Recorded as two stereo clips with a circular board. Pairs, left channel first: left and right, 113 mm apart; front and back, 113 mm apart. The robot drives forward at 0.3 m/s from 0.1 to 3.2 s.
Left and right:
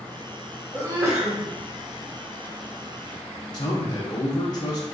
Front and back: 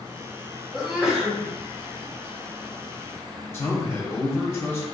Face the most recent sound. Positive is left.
turn(degrees=60)